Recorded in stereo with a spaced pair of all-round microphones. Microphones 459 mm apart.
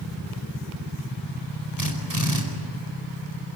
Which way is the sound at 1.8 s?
45° right (ahead or behind).